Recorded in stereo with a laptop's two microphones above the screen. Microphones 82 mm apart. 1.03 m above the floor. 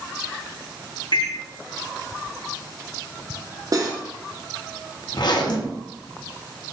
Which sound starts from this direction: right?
Cutlery clinking, at 3.7 s.